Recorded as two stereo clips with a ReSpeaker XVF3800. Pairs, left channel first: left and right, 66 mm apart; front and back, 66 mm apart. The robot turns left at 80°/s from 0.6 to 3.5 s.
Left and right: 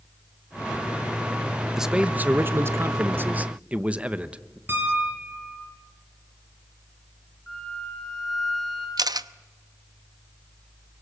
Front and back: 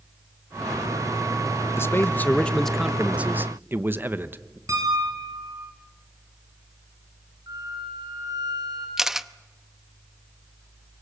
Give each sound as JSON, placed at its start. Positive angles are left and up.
{"t": 1.8, "sound": "a man speaking", "azimuth_deg": -5, "distance_m": 1.0}
{"t": 4.7, "sound": "a piano", "azimuth_deg": -145, "distance_m": 6.0}
{"t": 7.5, "sound": "a flute", "azimuth_deg": 175, "distance_m": 8.0}
{"t": 9.0, "sound": "a camera shutter", "azimuth_deg": -95, "distance_m": 0.7}